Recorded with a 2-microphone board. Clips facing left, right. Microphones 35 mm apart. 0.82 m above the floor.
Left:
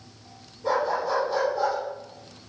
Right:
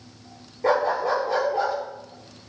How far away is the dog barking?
About 7 m.